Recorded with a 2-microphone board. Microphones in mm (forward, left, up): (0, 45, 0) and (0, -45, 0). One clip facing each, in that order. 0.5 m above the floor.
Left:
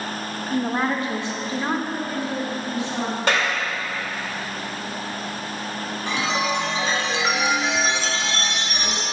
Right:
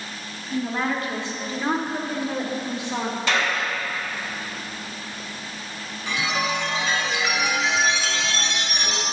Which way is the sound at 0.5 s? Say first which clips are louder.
Left 2 dB; 45° left (ahead or behind).